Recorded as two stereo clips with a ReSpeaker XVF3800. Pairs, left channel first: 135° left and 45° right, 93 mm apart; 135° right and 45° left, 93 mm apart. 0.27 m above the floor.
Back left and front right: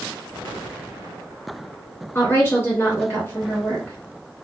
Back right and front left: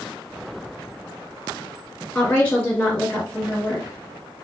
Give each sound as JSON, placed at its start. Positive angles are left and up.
{"t": 2.1, "sound": "a woman speaking", "azimuth_deg": 165, "distance_m": 1.5}